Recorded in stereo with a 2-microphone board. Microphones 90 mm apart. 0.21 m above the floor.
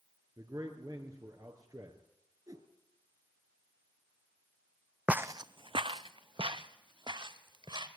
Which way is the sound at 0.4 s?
40° right (ahead or behind).